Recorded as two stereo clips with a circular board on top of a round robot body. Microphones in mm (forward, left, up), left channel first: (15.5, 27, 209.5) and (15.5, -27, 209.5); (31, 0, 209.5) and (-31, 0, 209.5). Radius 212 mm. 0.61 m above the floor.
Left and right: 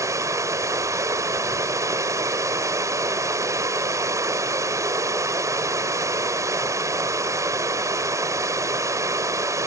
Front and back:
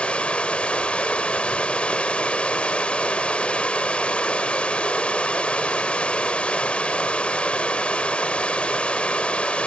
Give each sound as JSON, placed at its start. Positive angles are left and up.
{"t": 0.0, "sound": "running water", "azimuth_deg": -75}